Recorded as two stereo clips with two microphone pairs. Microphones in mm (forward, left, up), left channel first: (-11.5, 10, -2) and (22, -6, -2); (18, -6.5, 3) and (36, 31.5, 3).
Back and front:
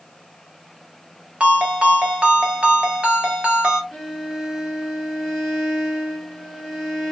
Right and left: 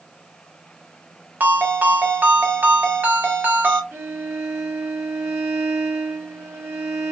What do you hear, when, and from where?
1.4 s a ringtone: 30° left, 1.2 m
3.9 s a violin: 60° left, 1.4 m